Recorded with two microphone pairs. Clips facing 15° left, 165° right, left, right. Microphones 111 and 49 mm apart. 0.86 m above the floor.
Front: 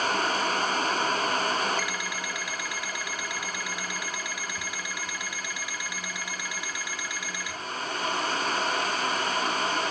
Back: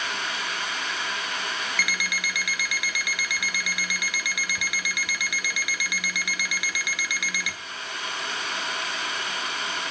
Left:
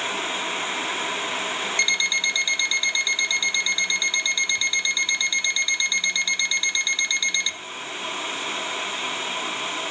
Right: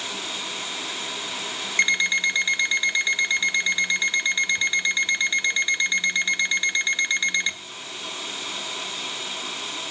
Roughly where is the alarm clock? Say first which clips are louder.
Back 1 dB, right 3 dB; behind right.